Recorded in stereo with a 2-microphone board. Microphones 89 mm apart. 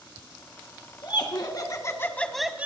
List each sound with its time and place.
1.0 s laughter: 60° left (ahead or behind), 2.5 m; by 2.7 s 20° right (ahead or behind), 1.1 m